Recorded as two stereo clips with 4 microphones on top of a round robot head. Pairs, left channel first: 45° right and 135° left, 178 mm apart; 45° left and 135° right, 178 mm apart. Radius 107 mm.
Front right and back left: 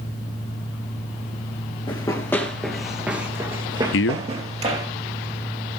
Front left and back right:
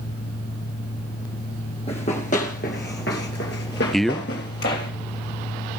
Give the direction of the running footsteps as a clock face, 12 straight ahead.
12 o'clock.